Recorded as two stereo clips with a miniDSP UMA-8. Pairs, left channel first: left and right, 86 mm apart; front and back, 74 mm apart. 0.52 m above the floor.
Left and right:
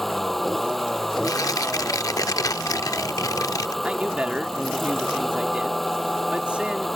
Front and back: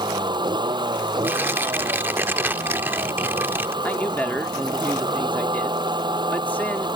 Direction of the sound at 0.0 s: Straight behind.